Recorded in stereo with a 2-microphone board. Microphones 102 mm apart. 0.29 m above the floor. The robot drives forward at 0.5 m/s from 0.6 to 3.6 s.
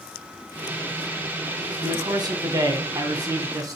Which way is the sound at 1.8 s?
45° right (ahead or behind).